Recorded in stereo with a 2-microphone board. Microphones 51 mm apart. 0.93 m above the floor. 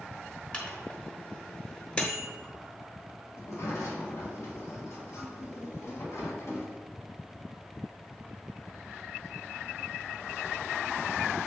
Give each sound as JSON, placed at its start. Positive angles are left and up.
{"t": 0.5, "sound": "a microwave", "side_deg": 20, "distance_m": 1.3}
{"t": 3.3, "sound": "a sliding door", "side_deg": 65, "distance_m": 1.8}